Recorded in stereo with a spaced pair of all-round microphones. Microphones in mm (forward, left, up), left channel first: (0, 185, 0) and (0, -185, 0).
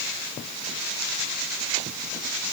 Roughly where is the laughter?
I don't hear laughter.